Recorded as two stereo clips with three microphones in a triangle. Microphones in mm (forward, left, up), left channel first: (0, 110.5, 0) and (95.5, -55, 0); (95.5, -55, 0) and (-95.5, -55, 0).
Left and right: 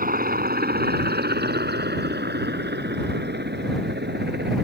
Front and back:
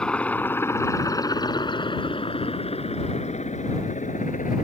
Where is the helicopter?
85° right; by 4.6 s 45° right.